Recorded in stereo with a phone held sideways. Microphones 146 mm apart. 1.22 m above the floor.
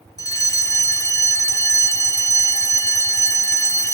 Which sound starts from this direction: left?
A fire alarm, at 0.2 s.